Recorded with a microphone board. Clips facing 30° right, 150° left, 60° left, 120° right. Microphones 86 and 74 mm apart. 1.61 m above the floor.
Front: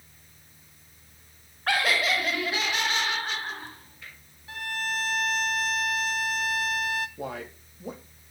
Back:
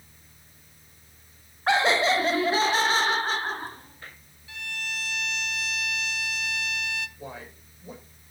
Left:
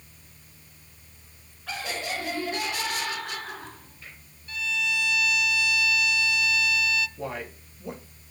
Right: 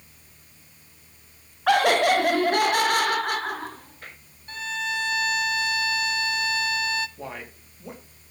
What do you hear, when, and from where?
1.7 s laughter: 140° right, 0.5 m; by 4.2 s 160° right, 1.9 m
4.5 s a violin: 70° right, 0.6 m
7.2 s a man speaking: 30° right, 4 m